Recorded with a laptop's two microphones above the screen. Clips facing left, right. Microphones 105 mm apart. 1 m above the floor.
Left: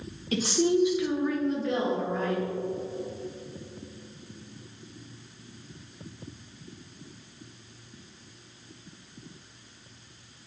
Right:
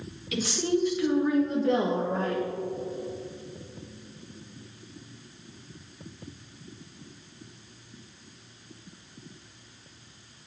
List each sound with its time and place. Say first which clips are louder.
0.3 s a woman speaking: left 3 dB; 40° left (ahead or behind), 0.8 m; by 2.5 s 55° right (ahead or behind), 1.2 m